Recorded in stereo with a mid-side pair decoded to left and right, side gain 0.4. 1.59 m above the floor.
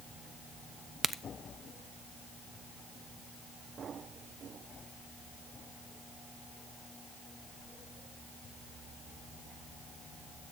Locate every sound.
1.0 s a crack: 20° right, 0.9 m